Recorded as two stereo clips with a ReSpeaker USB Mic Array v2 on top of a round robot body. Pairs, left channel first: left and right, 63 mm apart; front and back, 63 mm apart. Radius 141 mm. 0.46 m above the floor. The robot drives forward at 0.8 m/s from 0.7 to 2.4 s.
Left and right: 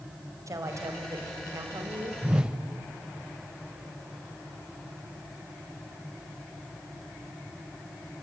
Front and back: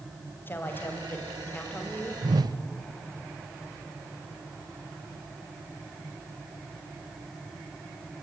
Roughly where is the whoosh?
Behind.